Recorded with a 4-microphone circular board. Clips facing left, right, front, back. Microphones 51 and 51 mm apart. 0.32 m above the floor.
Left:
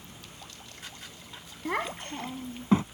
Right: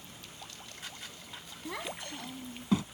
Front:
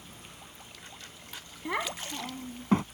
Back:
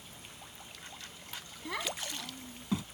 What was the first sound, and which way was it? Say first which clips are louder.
A child speaking: left 8 dB, front 5 dB; 60° left.